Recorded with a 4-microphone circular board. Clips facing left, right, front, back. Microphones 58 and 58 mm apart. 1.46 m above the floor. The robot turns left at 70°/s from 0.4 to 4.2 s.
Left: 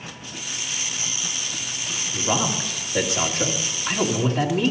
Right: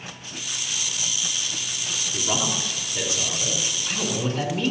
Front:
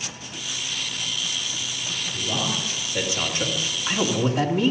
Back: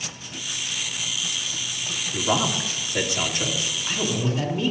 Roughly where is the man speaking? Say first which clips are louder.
Left 3 dB, back 5 dB; behind.